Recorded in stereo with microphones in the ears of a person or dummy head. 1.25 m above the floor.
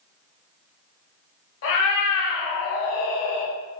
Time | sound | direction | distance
1.6 | a cat meowing | 55° left (ahead or behind) | 1.6 m